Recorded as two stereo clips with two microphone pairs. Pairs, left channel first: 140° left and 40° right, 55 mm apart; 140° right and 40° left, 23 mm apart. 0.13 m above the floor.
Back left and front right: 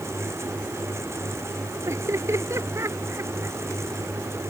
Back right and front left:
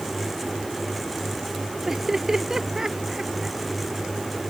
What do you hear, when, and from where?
1.9 s laughter: 25° right